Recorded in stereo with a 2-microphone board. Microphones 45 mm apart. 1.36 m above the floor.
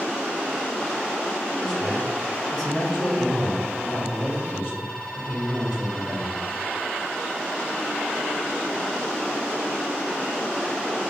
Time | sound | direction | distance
1.6 | a man speaking | 5° right (ahead or behind) | 2.0 m